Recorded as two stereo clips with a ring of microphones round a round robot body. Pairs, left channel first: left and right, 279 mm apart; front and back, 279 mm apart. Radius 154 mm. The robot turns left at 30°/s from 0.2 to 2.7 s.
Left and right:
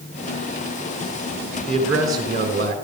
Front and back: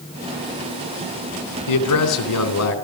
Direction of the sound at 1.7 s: Straight ahead.